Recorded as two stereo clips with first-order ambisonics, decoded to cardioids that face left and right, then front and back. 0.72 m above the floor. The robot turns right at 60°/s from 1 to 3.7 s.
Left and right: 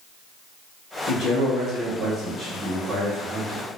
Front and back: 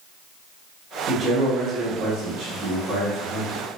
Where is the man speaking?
120° left, 1.2 m; by 3.6 s 85° right, 1.2 m.